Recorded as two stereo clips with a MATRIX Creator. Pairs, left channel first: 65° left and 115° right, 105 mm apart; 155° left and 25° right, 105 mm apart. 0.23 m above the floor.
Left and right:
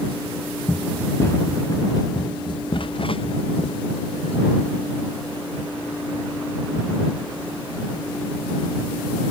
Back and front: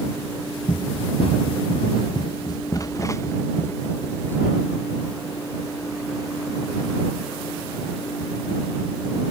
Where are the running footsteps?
145° left; by 4.4 s 85° left.